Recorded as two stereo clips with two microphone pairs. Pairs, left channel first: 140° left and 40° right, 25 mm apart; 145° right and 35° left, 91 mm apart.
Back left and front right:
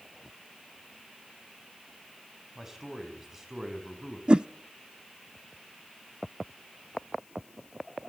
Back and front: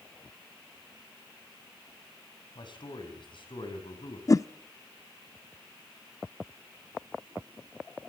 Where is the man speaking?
115° right, 5.5 m; by 4.2 s 125° right, 6.5 m.